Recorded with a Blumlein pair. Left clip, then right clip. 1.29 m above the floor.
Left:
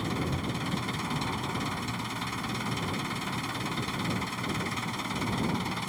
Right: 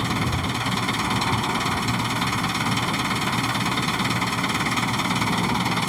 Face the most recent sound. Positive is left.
turn(degrees=-25)